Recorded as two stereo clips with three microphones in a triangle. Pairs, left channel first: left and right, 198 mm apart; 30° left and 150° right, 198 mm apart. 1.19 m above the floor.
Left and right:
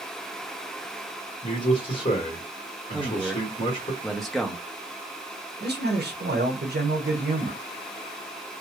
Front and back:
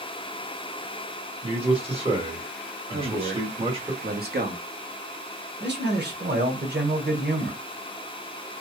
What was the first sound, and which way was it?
A man speaking, 150° left.